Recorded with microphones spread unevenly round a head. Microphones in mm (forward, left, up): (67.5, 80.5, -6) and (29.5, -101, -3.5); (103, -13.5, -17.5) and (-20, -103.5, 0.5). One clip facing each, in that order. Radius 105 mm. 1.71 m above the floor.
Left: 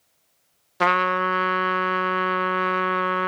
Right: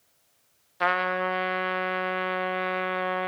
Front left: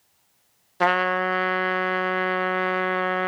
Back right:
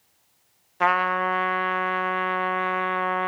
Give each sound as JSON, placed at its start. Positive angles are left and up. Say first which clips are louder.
{"t": 0.8, "sound": "a trumpet", "louder": "left 4 dB, front left 1 dB", "azimuth_deg": 95, "distance_m": 0.9}